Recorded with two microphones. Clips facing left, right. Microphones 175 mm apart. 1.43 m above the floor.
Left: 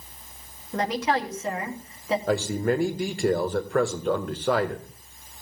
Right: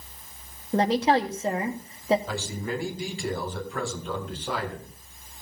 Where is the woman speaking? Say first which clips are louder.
Right 4 dB; 35° right (ahead or behind), 1.3 m.